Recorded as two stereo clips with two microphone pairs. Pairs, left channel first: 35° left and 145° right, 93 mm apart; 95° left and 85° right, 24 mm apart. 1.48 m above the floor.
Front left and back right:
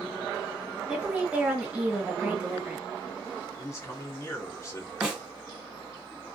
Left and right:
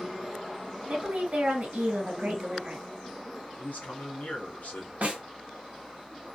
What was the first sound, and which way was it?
A woman speaking, 70° right.